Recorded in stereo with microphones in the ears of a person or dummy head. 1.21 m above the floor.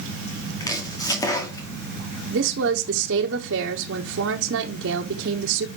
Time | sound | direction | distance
0.6 | chopping | 15° left (ahead or behind) | 1.7 m
2.3 | a woman speaking | 65° right (ahead or behind) | 1.3 m